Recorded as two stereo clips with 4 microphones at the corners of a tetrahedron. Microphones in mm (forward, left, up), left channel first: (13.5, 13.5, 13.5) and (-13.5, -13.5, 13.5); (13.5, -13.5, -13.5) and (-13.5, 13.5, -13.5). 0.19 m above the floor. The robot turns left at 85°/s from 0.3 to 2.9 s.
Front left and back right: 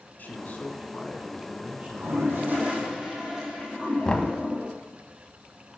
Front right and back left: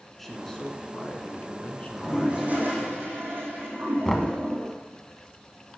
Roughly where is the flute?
I don't hear a flute.